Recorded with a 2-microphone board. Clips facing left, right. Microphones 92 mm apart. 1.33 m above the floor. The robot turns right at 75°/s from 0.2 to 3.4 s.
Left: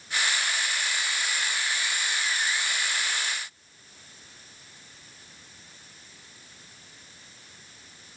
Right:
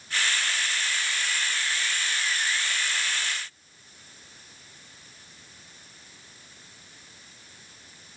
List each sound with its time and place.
Only background noise.